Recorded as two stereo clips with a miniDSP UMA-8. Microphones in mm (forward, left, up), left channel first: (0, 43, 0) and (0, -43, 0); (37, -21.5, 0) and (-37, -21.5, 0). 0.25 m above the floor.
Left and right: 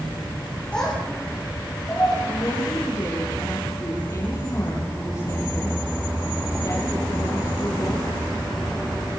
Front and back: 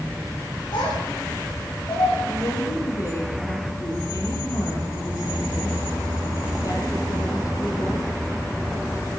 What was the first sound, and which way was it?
A child speaking, 10° left.